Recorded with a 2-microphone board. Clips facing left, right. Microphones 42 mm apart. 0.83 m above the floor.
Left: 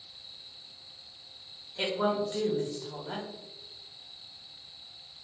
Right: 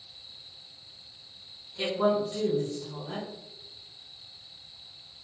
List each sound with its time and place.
1.8 s a woman speaking: 30° left (ahead or behind), 0.9 m